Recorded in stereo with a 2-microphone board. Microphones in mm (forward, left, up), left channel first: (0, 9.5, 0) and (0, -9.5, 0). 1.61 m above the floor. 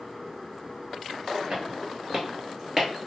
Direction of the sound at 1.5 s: 35° right (ahead or behind).